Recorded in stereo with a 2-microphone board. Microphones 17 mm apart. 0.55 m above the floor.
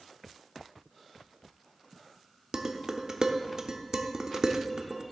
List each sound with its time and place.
2.5 s dishes clattering: 50° right (ahead or behind), 0.7 m